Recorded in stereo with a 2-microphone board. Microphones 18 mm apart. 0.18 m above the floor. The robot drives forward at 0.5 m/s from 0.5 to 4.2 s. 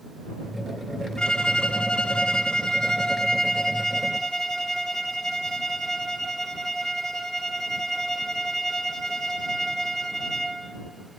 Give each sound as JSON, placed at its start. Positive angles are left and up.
{"t": 1.2, "sound": "a violin", "side_deg": 50, "distance_m": 0.7}